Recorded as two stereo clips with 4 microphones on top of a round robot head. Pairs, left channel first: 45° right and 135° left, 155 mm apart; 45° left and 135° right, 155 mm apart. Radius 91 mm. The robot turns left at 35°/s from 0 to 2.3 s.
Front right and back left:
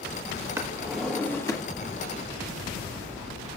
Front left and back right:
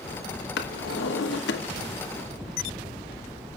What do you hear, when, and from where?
0.6 s a drawer: 60° left, 1.2 m; by 1.6 s 20° left, 1.2 m